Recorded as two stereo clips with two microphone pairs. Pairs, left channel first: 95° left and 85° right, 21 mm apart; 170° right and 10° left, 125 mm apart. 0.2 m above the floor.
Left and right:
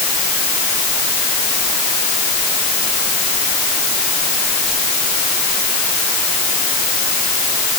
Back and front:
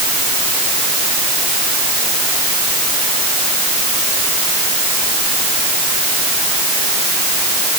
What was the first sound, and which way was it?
Only background noise.